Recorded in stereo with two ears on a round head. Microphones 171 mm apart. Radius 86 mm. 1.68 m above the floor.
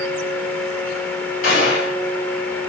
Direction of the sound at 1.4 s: 65° left (ahead or behind).